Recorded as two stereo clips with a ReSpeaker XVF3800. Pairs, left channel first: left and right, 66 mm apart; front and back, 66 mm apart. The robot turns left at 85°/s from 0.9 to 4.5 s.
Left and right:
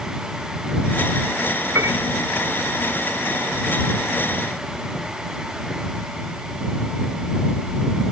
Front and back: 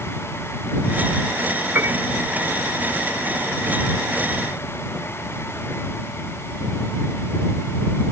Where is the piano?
120° right; by 2.0 s 140° right.